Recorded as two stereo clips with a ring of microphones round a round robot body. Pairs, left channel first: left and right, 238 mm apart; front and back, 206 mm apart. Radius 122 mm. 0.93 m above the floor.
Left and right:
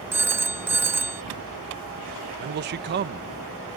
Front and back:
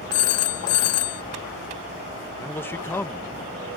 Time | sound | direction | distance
0.1 | a phone ringing | 10° right | ?
2.4 | a man speaking | 75° right | ?